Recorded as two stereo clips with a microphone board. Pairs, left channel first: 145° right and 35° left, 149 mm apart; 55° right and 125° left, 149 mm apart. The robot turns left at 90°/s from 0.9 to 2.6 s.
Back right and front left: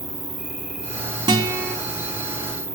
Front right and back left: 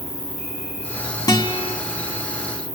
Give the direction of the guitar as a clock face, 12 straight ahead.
12 o'clock.